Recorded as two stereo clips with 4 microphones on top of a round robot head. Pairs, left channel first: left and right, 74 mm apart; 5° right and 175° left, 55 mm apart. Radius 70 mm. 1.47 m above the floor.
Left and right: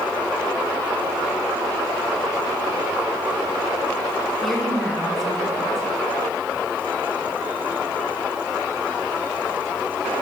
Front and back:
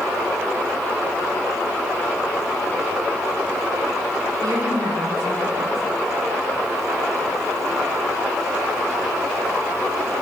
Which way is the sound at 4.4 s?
Straight behind.